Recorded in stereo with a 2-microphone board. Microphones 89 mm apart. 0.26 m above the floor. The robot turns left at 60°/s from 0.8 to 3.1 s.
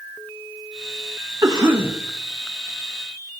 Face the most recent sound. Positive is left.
turn(degrees=140)